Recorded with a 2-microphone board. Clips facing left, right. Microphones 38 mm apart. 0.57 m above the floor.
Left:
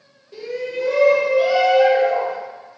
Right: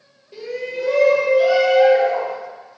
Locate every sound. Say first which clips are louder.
0.3 s a shout: left 1 dB; centre (ahead or behind), 1.4 m; by 2.3 s 25° left (ahead or behind), 2.5 m